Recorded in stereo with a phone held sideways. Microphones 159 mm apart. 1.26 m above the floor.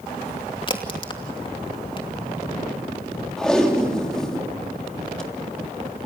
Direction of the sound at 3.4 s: 5° left (ahead or behind).